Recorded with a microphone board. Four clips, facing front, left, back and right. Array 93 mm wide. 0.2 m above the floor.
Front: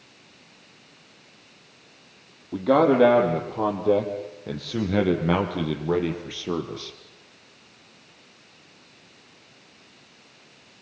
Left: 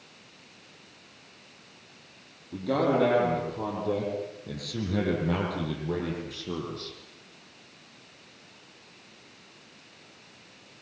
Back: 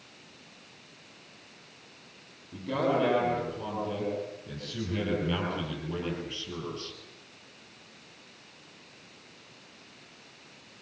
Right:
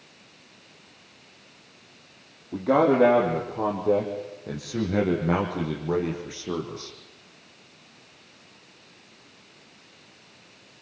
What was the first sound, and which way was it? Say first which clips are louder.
A man speaking: right 5 dB, front 10 dB; 25° right.